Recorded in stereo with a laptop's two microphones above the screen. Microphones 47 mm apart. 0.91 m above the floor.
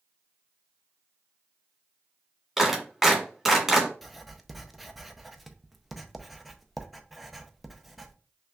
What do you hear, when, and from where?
2.6 s a clap: centre (ahead or behind), 1.8 m
4.0 s writing: centre (ahead or behind), 0.6 m